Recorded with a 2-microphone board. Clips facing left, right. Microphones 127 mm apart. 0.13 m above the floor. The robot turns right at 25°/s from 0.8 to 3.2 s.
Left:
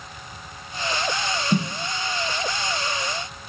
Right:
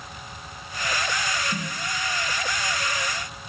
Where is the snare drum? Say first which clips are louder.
Left 9 dB; 75° left (ahead or behind), 2.5 m.